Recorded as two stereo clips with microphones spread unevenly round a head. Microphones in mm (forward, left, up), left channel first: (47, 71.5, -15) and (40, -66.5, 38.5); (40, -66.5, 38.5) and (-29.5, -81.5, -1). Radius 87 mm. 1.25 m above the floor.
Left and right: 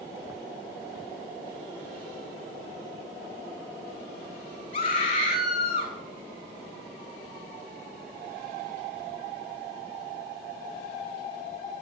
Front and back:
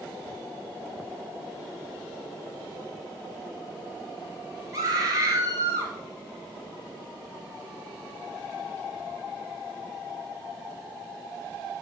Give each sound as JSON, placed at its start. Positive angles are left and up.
{"t": 4.7, "sound": "a scream", "azimuth_deg": 140, "distance_m": 3.0}